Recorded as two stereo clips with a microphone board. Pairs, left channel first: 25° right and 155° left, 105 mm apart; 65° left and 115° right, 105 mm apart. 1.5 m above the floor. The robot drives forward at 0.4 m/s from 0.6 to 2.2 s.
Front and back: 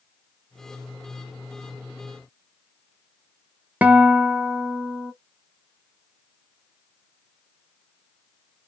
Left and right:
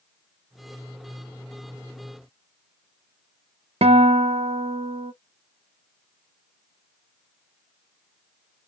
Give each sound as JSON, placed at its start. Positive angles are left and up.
{"t": 3.8, "sound": "a guitar", "azimuth_deg": -125, "distance_m": 0.5}